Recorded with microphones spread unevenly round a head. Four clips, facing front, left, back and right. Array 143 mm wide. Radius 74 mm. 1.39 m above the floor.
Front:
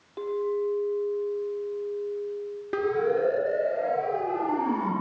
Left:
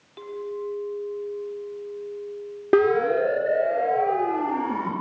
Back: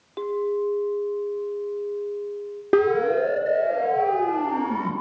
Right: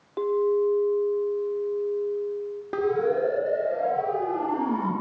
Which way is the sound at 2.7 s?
130° left.